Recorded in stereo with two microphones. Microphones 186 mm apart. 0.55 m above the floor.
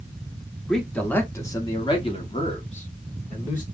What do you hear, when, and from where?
0.7 s a man speaking: 5° left (ahead or behind), 1.4 m; by 3.6 s 40° left (ahead or behind), 1.6 m